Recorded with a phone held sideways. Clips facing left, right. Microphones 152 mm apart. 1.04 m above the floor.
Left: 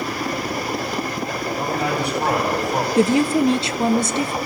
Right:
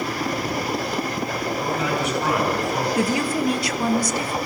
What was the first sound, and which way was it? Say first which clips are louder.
A man speaking: left 2 dB; 35° left (ahead or behind).